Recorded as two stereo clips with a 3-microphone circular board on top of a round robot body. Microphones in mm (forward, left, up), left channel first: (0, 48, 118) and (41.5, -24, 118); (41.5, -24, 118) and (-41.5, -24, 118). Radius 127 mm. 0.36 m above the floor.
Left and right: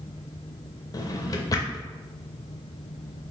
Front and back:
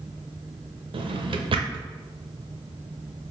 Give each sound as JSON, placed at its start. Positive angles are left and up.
{"t": 0.9, "sound": "a drawer", "azimuth_deg": 170, "distance_m": 0.5}